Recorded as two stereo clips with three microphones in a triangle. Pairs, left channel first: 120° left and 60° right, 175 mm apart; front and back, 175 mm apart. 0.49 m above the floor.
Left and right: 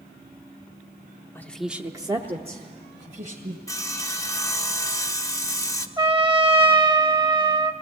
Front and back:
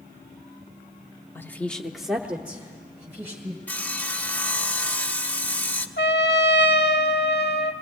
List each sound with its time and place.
1.4 s a woman speaking: 60° left, 0.8 m; by 3.6 s 105° right, 2 m
3.7 s sawing: 70° left, 0.8 m
6.0 s a trumpet: straight ahead, 0.9 m